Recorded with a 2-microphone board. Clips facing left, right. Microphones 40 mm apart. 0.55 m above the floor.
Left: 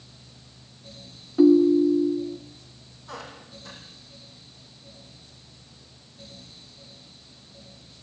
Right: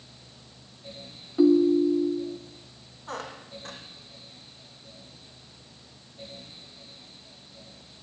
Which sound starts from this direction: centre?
A ringtone, at 1.4 s.